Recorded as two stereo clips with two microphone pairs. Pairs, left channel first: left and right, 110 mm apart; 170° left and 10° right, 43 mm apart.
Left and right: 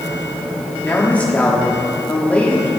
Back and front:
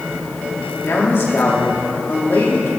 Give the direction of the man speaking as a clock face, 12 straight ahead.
6 o'clock.